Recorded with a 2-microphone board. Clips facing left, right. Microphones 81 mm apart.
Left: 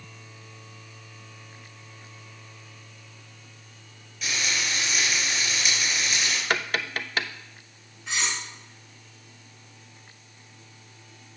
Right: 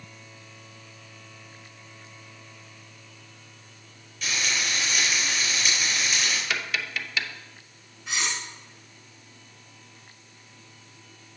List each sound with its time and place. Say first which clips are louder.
4.2 s frying: even; centre (ahead or behind), 4 m
6.5 s tapping: left 3 dB; 45° left (ahead or behind), 0.5 m
8.1 s cutlery clinking: even; 5° right (ahead or behind), 3.5 m